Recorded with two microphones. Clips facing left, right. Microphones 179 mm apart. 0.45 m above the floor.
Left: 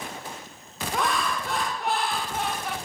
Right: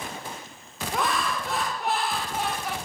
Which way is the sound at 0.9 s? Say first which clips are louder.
Even; centre (ahead or behind).